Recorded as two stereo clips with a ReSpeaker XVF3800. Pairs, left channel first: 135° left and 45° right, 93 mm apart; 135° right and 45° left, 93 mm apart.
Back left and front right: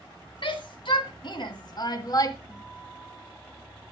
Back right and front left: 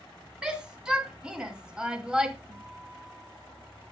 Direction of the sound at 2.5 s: 65° left.